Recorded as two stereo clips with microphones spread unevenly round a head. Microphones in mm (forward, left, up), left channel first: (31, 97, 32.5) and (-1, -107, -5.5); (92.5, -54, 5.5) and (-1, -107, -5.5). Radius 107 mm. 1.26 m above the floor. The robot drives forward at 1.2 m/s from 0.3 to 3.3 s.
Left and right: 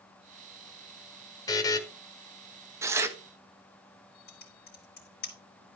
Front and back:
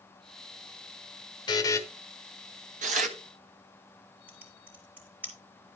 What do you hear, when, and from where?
1.5 s a buzzer: 25° left, 1.2 m; by 1.8 s 50° left, 1.0 m
2.8 s tearing paper: straight behind, 0.8 m
4.3 s typing on a keyboard: 125° left, 4 m